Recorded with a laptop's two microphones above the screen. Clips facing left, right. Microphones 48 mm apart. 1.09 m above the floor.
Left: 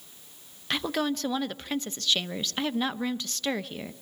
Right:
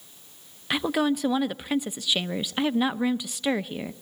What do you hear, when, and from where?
0.7 s a woman speaking: 15° right (ahead or behind), 0.7 m